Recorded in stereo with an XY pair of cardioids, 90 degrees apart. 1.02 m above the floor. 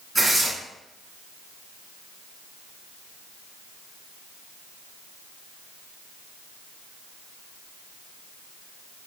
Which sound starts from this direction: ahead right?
Tearing paper, at 0.1 s.